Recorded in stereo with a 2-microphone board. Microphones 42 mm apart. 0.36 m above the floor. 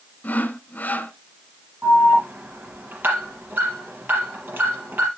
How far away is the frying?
No frying in this recording.